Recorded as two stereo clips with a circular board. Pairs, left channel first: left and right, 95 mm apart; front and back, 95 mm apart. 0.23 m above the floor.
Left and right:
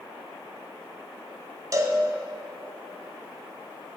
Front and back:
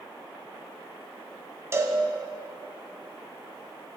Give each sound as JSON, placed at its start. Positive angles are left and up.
{"t": 1.7, "sound": "a cowbell", "azimuth_deg": -130, "distance_m": 0.8}